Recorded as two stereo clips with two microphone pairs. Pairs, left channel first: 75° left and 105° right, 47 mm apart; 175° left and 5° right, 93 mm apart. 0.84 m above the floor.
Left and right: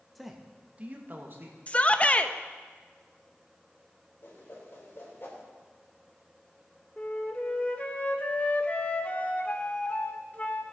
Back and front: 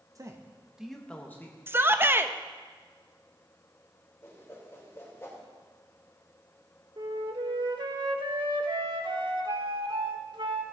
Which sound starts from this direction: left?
A whoosh, at 4.2 s.